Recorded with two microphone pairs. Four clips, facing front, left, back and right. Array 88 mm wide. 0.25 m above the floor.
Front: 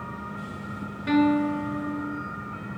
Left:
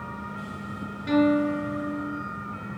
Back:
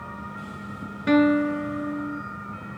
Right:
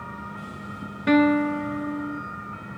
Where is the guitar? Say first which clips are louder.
Right 2 dB, back 2 dB; 115° right, 3 m.